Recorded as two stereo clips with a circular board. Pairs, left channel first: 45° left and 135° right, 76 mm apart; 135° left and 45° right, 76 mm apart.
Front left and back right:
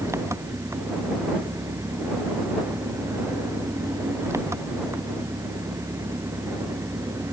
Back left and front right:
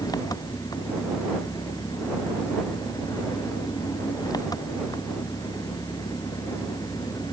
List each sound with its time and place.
0.0 s an engine running: 170° left